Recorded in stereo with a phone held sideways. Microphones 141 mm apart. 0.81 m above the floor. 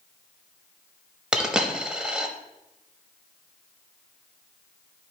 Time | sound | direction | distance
1.3 | a dropped coin | 5° right (ahead or behind) | 0.8 m